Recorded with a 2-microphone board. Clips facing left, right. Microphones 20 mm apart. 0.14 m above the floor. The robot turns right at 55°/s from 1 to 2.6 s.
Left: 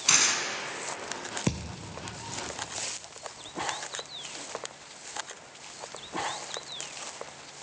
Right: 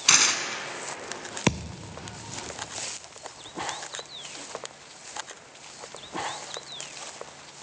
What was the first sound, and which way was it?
Tearing paper, 20° right (ahead or behind).